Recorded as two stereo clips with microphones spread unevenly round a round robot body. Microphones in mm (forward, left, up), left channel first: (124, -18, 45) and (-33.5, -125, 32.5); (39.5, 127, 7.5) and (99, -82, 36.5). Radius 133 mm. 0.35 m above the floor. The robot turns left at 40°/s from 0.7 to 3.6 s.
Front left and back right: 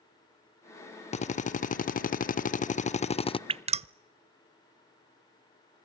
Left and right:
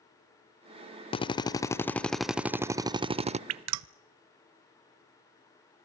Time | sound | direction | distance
1.1 | a drill | 70° left | 0.6 m
3.5 | dripping | 80° right | 0.5 m